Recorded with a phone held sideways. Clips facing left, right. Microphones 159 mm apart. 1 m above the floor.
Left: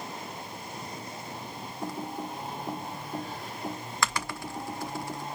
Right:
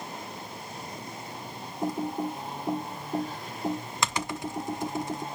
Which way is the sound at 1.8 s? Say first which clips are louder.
Right 6 dB; 20° right (ahead or behind).